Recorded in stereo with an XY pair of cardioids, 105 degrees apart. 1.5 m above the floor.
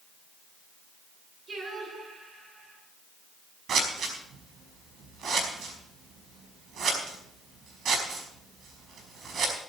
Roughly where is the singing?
Ahead right.